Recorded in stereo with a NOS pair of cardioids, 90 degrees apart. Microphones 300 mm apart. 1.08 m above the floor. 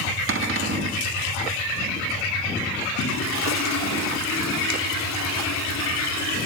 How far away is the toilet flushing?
About 2.5 m.